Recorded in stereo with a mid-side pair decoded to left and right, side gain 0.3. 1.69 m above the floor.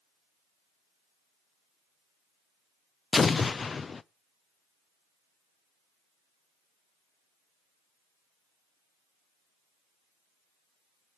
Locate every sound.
3.1 s an explosion: 45° left, 0.6 m